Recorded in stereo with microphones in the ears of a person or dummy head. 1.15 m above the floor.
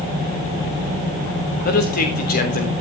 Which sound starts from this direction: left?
A man speaking, at 1.6 s.